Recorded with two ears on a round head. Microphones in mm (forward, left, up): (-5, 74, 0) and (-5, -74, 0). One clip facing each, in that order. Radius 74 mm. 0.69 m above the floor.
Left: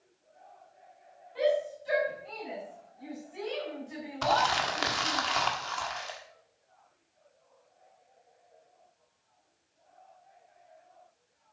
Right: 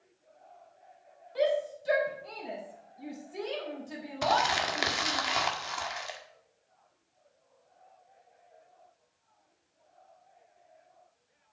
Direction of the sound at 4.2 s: 10° right (ahead or behind).